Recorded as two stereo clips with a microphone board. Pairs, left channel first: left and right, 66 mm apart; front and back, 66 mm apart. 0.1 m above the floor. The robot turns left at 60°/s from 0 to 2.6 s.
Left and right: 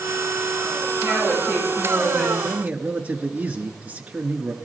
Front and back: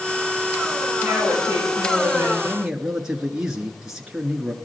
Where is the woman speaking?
170° right, 8 m; by 2.3 s 110° left, 8 m.